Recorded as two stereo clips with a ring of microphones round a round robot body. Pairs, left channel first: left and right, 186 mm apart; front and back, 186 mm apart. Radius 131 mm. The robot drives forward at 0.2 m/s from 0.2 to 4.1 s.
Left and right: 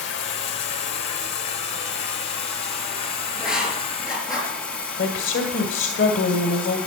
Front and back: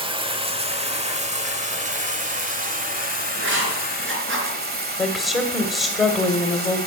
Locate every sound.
0.0 s running water: 120° left, 1.2 m; by 6.9 s 145° left, 1.7 m
3.4 s writing: 165° left, 4.5 m
5.0 s a woman speaking: 90° left, 2 m